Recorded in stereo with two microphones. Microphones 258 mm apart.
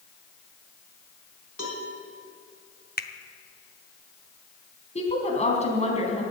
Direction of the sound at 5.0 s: 25° left (ahead or behind).